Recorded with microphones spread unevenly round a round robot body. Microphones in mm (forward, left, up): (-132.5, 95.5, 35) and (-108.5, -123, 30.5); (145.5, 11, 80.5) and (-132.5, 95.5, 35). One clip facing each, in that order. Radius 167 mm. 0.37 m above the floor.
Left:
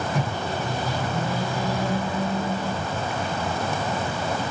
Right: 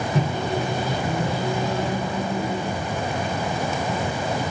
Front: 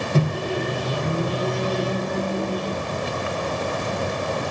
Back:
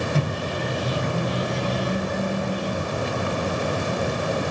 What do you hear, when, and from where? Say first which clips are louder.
0.1 s a microwave: right 4 dB, front 3 dB; 30° right, 1.1 m